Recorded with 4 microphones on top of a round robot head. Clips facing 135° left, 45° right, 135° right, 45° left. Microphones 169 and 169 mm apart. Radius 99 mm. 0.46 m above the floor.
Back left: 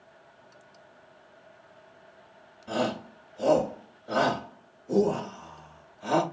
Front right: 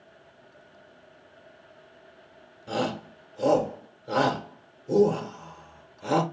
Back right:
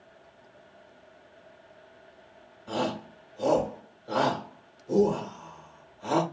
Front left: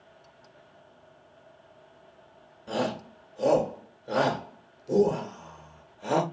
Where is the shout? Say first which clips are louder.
Even, front left 1 dB; 25° right, 1.7 m.